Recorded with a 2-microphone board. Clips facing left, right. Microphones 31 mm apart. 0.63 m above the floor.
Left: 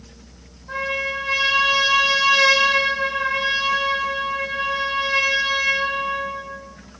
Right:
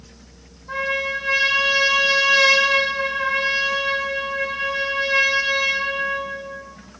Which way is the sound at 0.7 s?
Centre (ahead or behind).